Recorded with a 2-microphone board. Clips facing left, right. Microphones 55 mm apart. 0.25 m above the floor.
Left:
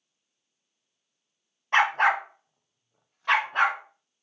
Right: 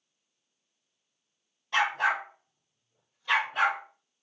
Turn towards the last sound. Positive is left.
turn(degrees=50)  # may be behind; listen again after turning